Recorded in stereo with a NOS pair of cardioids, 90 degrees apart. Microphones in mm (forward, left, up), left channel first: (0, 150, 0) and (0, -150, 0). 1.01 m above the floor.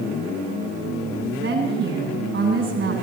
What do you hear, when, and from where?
1.4 s a woman speaking: 40° right, 9 m